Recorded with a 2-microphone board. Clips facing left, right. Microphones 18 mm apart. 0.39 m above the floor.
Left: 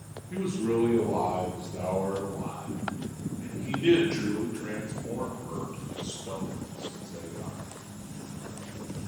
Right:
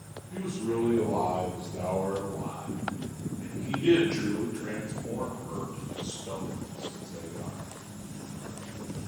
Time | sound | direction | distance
0.3 | a man speaking | 75° left (ahead or behind) | 5.5 m